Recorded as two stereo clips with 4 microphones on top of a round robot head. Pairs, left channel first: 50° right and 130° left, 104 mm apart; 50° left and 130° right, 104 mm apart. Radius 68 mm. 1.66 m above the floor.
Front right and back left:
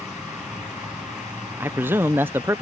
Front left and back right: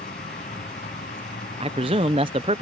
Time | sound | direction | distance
0.0 | a vehicle | 45° left | ?
1.6 | a man speaking | 160° right | ?